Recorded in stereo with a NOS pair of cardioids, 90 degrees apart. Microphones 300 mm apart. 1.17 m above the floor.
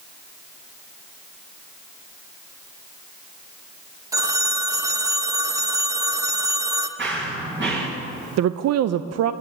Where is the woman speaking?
50° right, 0.5 m.